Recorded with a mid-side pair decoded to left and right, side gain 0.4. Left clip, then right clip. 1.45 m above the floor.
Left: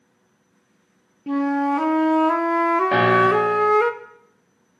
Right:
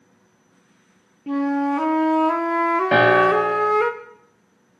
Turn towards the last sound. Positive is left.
turn(degrees=-55)